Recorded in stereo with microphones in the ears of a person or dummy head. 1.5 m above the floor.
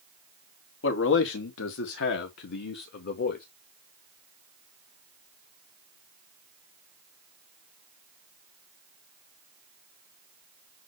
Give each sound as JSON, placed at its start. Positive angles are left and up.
{"t": 0.8, "sound": "a man speaking", "side_deg": 75, "distance_m": 2.0}